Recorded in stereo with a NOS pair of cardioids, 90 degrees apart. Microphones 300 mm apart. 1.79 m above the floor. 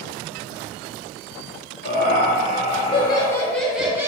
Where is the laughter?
35° left, 1.7 m; by 4.1 s 10° right, 1.2 m.